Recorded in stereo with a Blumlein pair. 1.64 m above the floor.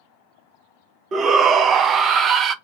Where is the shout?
25° right, 0.5 m.